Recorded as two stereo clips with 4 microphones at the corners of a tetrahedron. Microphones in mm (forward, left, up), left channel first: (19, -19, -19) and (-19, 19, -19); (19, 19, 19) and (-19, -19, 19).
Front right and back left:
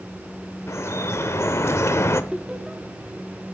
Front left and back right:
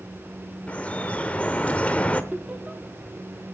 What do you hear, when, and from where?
0.7 s dripping: 20° right, 0.7 m
2.3 s laughter: 160° right, 0.8 m